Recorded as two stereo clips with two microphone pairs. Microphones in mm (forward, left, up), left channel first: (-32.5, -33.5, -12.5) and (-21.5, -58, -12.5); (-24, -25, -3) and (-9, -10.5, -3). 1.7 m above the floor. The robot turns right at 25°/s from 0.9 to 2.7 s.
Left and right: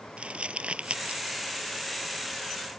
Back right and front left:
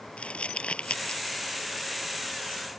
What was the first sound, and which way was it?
Crumpling, 115° right.